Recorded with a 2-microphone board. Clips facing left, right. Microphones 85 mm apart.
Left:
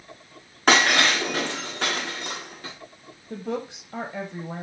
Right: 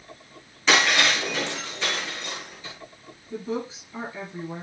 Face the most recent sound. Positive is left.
turn(degrees=65)  # may be behind; listen again after turning